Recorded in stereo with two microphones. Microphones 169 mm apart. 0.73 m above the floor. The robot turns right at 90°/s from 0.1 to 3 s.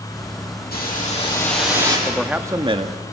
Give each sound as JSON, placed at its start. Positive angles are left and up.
{"t": 0.7, "sound": "a hiss", "azimuth_deg": 100, "distance_m": 7.0}
{"t": 2.1, "sound": "a man speaking", "azimuth_deg": 165, "distance_m": 1.2}